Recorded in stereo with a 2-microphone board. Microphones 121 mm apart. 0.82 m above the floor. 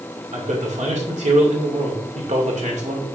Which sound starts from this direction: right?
A man speaking, at 0.3 s.